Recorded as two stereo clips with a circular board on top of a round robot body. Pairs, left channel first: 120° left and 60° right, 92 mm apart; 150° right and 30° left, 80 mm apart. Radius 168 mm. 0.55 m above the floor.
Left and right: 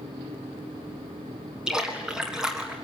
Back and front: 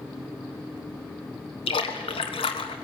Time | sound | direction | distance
1.7 | a splash | 140° right | 1.6 m